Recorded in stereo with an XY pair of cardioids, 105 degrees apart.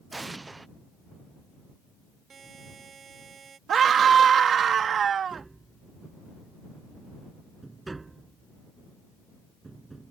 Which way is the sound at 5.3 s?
20° right.